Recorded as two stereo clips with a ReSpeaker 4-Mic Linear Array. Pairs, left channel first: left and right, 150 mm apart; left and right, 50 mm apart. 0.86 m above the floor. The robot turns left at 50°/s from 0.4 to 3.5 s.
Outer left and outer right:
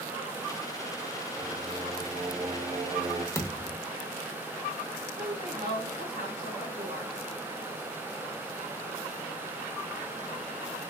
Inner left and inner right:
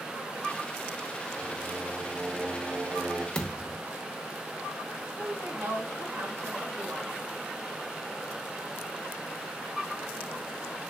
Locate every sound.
1.4 s singing: straight ahead, 1.1 m; by 3.2 s 95° right, 1.1 m
3.4 s a thud: 20° left (ahead or behind), 0.7 m; by 3.8 s 10° left (ahead or behind), 0.7 m
5.2 s a woman speaking: 80° right, 1.8 m